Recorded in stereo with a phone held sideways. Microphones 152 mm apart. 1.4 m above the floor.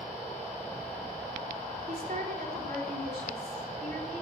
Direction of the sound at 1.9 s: 70° right (ahead or behind).